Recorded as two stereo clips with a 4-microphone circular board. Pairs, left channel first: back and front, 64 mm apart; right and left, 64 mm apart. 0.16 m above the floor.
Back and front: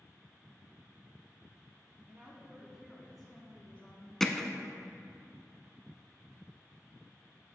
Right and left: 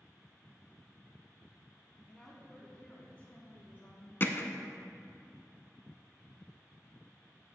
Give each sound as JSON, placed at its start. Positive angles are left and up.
{"t": 2.1, "sound": "a woman speaking", "azimuth_deg": -15, "distance_m": 1.5}
{"t": 4.2, "sound": "hammering", "azimuth_deg": -100, "distance_m": 0.7}